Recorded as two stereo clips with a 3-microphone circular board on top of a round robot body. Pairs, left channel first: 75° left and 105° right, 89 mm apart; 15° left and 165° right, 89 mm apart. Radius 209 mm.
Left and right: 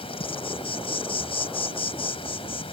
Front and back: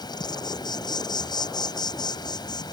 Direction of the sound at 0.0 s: 55° left.